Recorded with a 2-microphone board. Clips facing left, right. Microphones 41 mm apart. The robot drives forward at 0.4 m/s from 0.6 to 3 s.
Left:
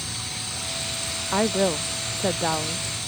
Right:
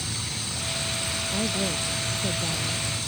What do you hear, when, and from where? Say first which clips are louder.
1.3 s a woman speaking: left 8 dB; 70° left (ahead or behind); by 3.1 s 65° left (ahead or behind)